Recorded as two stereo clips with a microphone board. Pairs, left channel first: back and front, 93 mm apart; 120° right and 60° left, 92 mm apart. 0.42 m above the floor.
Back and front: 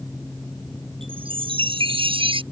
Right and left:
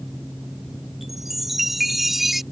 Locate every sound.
1.0 s a chime: 30° right